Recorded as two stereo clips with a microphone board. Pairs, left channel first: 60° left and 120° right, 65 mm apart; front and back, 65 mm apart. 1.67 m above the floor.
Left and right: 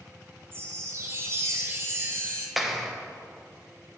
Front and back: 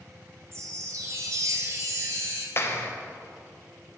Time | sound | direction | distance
0.5 | a chime | 160° right | 1.5 m
2.6 | a clap | 30° right | 0.9 m